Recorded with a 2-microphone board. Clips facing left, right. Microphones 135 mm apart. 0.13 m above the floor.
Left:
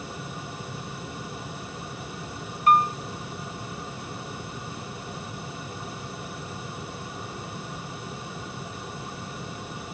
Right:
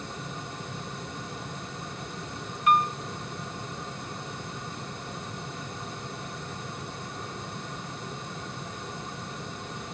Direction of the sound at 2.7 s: 40° left (ahead or behind).